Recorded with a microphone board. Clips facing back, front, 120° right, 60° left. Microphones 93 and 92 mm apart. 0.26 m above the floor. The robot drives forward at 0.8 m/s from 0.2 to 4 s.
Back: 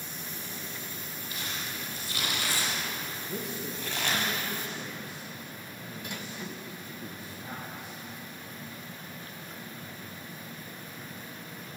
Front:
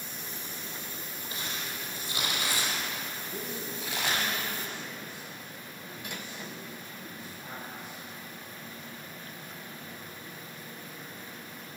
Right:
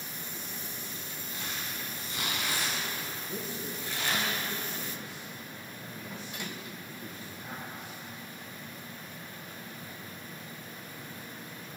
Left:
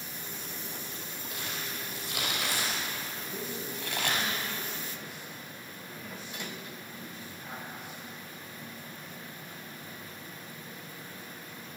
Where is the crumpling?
65° left, 6 m; by 4.3 s 85° left, 5 m.